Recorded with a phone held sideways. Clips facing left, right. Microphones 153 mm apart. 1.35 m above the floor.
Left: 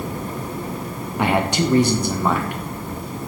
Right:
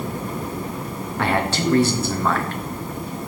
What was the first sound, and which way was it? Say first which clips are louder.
A man speaking: left 2 dB; 15° left (ahead or behind).